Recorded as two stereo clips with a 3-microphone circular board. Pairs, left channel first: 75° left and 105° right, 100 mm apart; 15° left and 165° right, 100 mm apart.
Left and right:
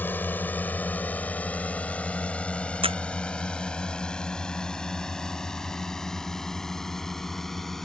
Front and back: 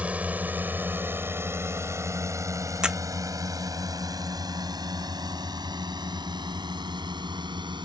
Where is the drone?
130° left; by 7.9 s 160° left.